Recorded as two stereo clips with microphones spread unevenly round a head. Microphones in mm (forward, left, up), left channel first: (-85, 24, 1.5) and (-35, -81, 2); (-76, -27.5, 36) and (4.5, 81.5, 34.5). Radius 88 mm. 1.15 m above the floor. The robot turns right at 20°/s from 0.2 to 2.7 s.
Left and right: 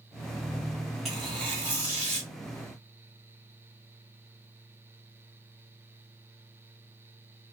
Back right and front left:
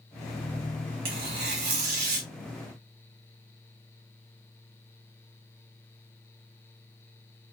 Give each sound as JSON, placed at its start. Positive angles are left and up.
{"t": 1.1, "sound": "tearing paper", "azimuth_deg": 25, "distance_m": 1.6}